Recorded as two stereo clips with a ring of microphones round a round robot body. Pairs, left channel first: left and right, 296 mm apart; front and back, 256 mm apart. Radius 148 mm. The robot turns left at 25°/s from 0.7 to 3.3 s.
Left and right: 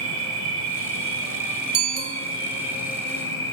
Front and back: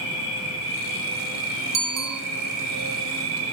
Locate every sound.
0.0 s an insect: 125° right, 4 m; by 3.5 s 170° left, 4 m
1.7 s a bicycle bell: 150° right, 2 m; by 2.2 s 160° right, 2 m